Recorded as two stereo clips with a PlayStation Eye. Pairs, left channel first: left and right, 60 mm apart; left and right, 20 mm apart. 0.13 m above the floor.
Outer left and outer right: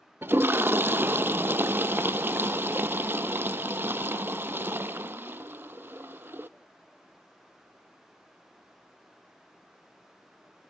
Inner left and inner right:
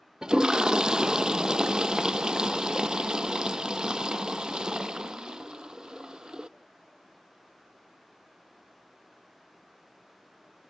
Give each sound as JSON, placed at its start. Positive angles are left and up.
{"t": 0.2, "sound": "a toilet flushing", "side_deg": -40, "distance_m": 0.6}